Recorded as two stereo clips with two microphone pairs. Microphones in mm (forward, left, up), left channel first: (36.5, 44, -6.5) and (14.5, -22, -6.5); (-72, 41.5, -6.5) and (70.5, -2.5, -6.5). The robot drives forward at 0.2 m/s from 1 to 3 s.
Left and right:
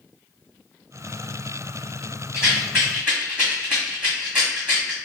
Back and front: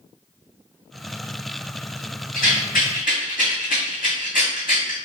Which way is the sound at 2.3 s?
Straight behind.